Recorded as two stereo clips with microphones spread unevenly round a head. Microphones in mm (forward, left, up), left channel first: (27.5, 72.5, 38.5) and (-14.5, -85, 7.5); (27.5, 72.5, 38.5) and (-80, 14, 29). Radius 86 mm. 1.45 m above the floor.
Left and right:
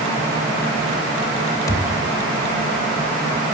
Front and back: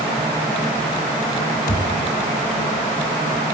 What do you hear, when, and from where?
1.7 s a thud: 10° left, 3 m